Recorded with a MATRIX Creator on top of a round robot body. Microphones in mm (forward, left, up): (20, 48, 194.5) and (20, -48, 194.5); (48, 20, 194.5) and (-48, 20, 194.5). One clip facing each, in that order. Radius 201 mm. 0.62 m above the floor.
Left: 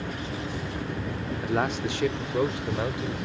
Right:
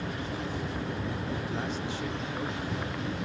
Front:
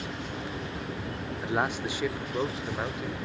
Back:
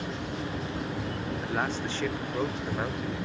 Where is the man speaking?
70° left; by 3.2 s 90° left.